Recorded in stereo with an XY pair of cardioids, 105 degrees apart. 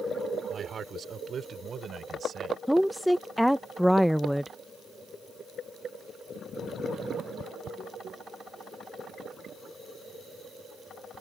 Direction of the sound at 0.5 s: 50° right.